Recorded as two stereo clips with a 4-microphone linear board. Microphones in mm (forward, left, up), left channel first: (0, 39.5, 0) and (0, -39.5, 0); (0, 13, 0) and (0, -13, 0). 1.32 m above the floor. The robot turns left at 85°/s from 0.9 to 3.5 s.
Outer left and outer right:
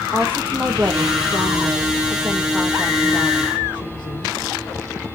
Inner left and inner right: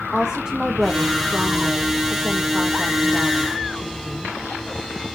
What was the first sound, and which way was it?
A woman speaking, 30° right.